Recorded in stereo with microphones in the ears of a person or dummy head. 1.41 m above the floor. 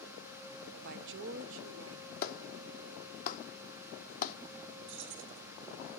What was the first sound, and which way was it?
A woman speaking, 55° right (ahead or behind).